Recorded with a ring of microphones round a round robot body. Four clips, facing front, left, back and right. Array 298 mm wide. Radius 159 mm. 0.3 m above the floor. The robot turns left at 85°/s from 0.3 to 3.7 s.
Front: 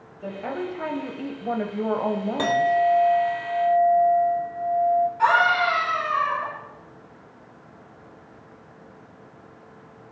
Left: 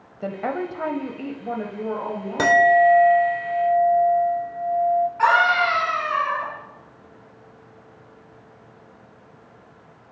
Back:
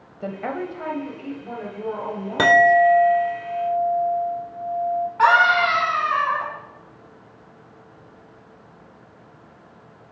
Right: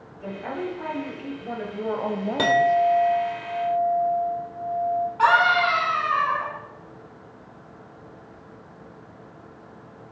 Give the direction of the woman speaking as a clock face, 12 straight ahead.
8 o'clock.